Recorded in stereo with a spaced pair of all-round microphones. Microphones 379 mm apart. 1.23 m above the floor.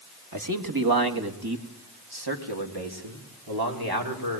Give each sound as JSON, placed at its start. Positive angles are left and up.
{"t": 0.3, "sound": "a man speaking", "side_deg": -50, "distance_m": 1.7}